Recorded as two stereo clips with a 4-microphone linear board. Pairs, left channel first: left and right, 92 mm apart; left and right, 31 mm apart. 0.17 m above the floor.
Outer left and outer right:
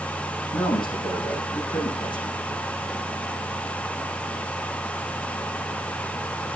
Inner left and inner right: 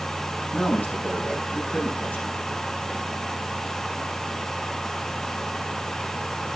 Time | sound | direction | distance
0.5 | a man speaking | 60° left (ahead or behind) | 7.5 m